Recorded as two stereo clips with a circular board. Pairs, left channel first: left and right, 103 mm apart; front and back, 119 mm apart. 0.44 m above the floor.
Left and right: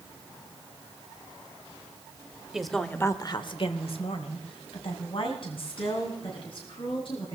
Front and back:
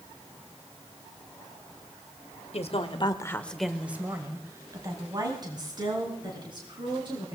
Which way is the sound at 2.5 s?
5° right.